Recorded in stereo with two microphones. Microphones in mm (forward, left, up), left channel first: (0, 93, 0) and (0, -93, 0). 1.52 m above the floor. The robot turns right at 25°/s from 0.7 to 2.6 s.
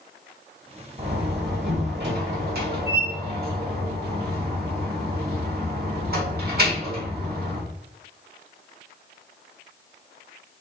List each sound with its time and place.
1.0 s a door slam: 115° right, 1.5 m; by 7.6 s 75° right, 1.5 m